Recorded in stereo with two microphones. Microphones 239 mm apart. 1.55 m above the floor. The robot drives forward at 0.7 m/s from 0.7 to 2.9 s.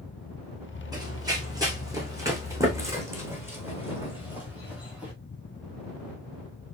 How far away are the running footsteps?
About 3.5 m.